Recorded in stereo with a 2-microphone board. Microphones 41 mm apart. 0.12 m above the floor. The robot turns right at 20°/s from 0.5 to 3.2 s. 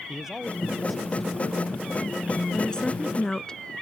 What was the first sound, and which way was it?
A man speaking, 15° right (ahead or behind).